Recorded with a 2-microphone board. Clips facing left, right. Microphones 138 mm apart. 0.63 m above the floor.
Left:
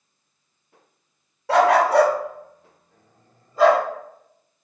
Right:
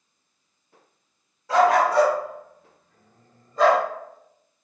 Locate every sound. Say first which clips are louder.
1.5 s a dog barking: left 2 dB; 75° left (ahead or behind), 0.6 m; by 3.8 s centre (ahead or behind), 1.0 m